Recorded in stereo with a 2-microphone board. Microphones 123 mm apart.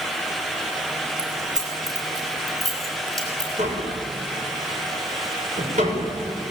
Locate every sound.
1.2 s keys jangling: 20° right (ahead or behind), 7 m; by 3.5 s 30° right (ahead or behind), 6.5 m
3.6 s tapping: 90° right, 6.5 m